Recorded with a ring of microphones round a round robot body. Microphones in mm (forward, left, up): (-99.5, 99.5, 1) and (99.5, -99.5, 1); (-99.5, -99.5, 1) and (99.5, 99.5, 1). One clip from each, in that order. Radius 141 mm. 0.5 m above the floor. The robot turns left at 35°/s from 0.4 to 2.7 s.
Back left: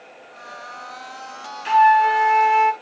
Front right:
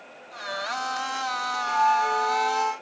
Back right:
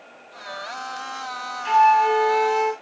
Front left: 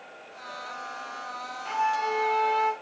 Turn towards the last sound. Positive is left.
turn(degrees=135)